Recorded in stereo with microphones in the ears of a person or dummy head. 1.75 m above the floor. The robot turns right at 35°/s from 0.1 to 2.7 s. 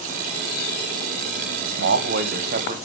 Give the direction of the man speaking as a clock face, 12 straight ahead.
3 o'clock.